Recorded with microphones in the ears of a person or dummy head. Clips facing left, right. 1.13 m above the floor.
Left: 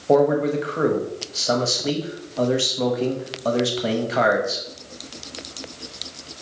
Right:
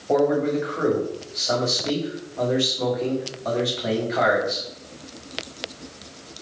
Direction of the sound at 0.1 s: 50° left (ahead or behind).